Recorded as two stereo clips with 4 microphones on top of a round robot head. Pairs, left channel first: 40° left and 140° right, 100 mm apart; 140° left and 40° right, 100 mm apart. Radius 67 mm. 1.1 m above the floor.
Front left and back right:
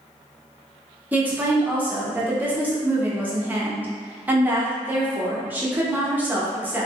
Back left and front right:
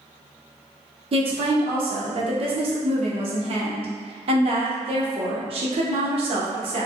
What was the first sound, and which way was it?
A woman speaking, 65° right.